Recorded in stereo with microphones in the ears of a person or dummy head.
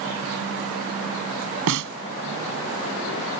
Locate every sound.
1.7 s a snare drum: 65° right (ahead or behind)